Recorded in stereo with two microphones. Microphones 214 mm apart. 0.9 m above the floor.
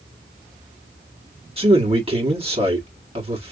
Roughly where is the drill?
No drill in this recording.